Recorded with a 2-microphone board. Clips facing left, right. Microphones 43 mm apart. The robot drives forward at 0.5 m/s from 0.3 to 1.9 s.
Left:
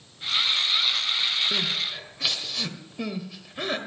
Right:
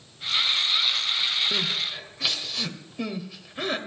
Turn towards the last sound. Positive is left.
turn(degrees=0)  # may be behind; listen again after turning